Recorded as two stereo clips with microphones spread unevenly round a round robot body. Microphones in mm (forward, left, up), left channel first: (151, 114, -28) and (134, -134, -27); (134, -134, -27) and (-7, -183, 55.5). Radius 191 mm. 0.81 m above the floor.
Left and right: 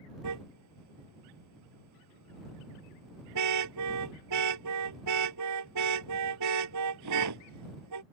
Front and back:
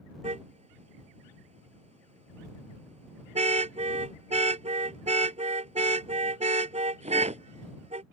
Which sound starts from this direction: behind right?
A car horn, at 0.2 s.